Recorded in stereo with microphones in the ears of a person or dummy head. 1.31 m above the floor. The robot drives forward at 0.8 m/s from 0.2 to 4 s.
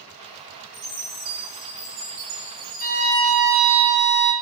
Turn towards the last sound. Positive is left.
turn(degrees=-60)  # may be behind; listen again after turning